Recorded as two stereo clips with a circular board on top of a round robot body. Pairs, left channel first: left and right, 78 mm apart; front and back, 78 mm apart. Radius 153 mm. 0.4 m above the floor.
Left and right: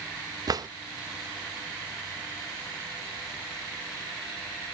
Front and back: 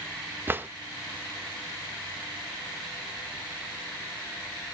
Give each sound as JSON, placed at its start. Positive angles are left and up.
{"t": 0.5, "sound": "a drawer", "azimuth_deg": -120, "distance_m": 0.8}